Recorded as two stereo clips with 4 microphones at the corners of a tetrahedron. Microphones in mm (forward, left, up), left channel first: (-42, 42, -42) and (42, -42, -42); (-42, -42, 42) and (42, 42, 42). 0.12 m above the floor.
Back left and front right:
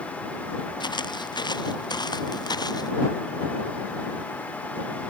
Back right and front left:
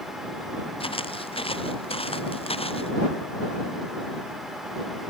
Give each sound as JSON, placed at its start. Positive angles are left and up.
{"t": 0.8, "sound": "footsteps", "azimuth_deg": -175}